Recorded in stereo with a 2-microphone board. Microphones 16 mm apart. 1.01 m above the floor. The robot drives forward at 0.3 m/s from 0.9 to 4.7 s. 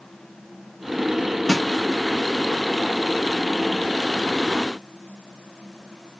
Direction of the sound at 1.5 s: 45° left (ahead or behind).